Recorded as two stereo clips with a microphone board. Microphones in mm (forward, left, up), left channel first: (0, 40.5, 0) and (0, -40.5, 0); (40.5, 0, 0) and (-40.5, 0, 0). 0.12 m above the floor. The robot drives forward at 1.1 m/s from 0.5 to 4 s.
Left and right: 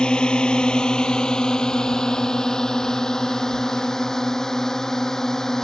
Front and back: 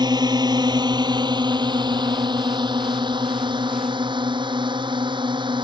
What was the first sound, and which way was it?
A drone, 165° left.